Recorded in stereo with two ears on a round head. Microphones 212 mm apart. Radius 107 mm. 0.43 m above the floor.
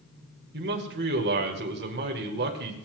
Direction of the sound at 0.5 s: 45° right (ahead or behind).